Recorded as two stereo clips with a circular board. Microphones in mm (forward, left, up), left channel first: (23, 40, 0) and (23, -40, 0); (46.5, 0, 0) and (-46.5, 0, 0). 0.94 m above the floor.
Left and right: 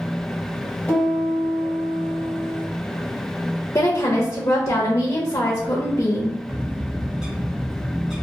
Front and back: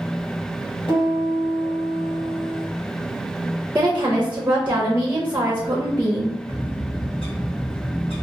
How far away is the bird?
About 1.1 m.